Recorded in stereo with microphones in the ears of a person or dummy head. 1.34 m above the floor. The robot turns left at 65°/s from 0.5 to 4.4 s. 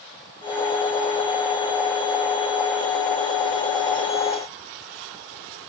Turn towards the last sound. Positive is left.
No sound to turn to.